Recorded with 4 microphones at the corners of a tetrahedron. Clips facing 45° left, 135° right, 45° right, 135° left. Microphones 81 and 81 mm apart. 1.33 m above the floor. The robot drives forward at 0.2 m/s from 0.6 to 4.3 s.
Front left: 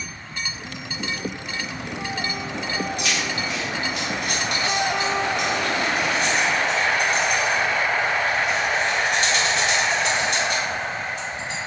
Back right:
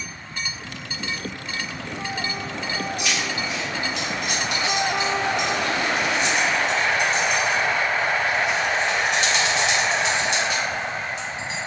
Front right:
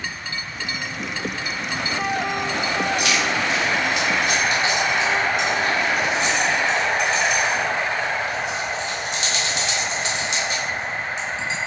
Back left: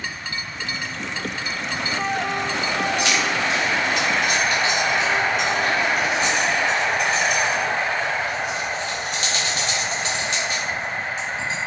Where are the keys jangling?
75° left, 1.4 m; by 11.6 s 85° left, 1.3 m.